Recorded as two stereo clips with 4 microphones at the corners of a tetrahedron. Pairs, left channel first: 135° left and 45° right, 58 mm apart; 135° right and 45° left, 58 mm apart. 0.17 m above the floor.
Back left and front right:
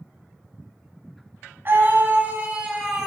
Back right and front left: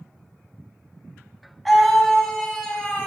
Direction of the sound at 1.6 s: 45° right.